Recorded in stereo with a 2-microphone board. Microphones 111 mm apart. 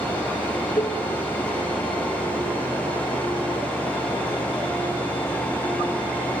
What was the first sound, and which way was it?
Dishes clattering, 50° left (ahead or behind).